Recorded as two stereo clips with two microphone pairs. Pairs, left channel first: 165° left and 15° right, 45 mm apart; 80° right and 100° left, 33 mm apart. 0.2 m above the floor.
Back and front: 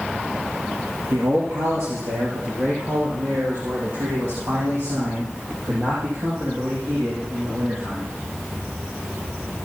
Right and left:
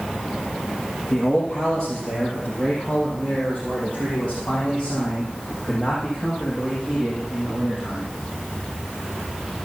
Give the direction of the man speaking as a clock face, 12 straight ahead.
12 o'clock.